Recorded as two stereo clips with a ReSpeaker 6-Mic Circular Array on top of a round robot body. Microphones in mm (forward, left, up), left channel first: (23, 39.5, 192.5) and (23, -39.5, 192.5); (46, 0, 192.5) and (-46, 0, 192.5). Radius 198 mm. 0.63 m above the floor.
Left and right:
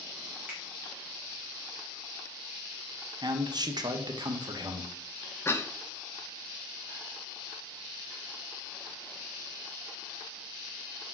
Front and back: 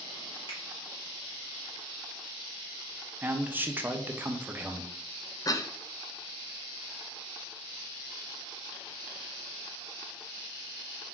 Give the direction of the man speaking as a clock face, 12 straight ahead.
4 o'clock.